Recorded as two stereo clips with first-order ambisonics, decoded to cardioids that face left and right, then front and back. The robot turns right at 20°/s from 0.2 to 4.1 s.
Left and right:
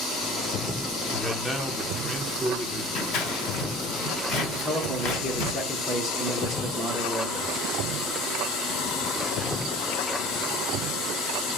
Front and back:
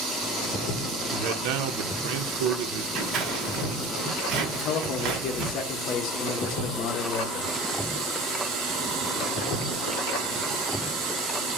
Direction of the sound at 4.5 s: 10° left.